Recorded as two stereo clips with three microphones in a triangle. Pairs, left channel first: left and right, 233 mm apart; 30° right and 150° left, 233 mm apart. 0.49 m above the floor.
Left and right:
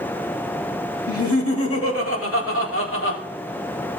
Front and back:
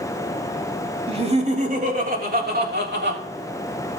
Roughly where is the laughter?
Left.